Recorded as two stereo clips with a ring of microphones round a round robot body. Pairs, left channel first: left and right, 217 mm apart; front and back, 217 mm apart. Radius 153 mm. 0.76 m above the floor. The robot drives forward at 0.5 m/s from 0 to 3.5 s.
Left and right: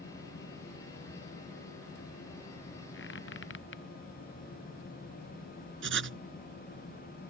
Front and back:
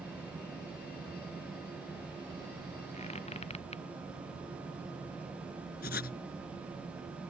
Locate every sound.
2.9 s a squeak: 60° left
5.8 s writing: 60° right